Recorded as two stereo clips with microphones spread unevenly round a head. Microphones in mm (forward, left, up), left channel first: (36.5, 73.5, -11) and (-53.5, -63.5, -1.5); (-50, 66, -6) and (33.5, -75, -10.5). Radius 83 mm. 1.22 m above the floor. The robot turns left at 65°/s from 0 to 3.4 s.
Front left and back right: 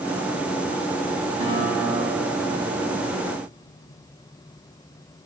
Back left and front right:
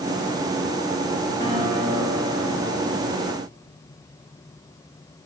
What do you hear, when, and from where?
1.4 s a guitar: 175° right, 3 m; by 3.0 s 80° left, 3 m